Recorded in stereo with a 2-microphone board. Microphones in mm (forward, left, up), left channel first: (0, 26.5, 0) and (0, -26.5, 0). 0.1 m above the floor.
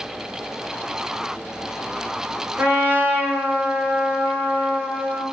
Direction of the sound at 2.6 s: 35° right (ahead or behind).